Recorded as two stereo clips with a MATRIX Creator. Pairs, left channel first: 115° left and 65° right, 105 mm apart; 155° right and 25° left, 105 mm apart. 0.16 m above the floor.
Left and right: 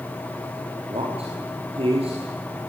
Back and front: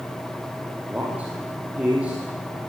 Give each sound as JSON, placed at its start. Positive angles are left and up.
{"t": 0.9, "sound": "a man speaking", "azimuth_deg": -55, "distance_m": 5.0}